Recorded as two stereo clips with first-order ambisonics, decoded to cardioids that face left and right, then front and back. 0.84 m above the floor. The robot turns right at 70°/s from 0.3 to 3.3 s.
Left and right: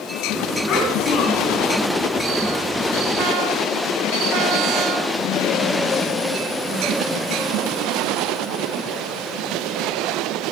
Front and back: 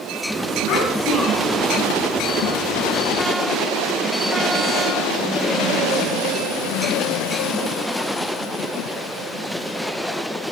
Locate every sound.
0.7 s a child speaking: 35° left, 6.5 m; by 1.6 s 100° left, 6.5 m